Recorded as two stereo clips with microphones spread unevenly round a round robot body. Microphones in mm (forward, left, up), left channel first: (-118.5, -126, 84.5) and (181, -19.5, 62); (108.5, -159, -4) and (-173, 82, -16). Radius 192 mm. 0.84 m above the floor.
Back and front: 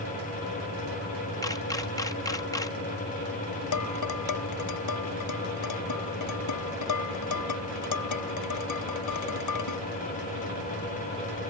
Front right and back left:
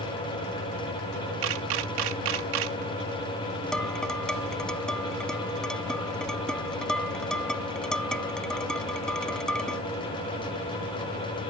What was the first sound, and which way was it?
A camera shutter, 120° left.